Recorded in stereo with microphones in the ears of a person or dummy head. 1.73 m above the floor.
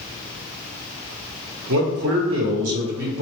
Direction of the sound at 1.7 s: 80° right.